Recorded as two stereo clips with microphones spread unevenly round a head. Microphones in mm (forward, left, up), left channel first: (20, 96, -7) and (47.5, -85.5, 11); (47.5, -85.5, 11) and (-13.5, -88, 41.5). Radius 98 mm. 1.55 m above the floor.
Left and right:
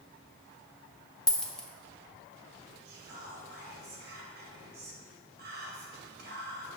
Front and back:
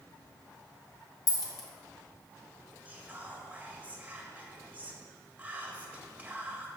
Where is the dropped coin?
5° left, 0.9 m.